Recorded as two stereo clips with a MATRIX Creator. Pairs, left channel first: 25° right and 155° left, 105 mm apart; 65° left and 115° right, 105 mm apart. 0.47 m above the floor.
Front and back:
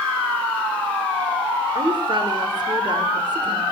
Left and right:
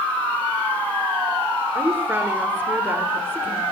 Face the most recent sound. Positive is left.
turn(degrees=180)